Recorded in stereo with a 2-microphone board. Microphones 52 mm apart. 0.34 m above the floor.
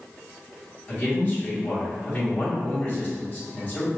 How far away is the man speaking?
About 2.0 m.